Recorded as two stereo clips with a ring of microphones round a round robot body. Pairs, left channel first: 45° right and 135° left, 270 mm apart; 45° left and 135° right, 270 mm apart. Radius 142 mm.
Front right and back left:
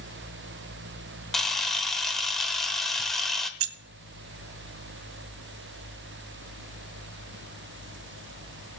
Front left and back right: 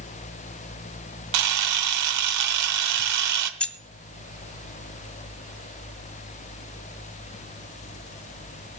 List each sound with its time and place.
1.3 s a camera shutter: 135° right, 1.0 m
3.6 s keys jangling: 130° left, 0.6 m